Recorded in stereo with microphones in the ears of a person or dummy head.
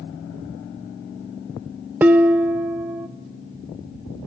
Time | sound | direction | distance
2.0 | dishes clattering | 10° right (ahead or behind) | 0.6 m